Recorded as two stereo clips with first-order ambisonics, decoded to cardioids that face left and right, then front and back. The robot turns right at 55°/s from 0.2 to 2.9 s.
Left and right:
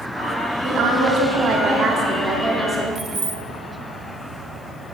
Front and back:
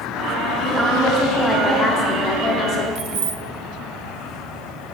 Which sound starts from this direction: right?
A woman speaking, at 0.6 s.